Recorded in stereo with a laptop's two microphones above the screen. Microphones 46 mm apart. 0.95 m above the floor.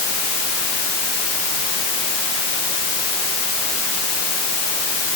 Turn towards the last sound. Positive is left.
No sound to turn to.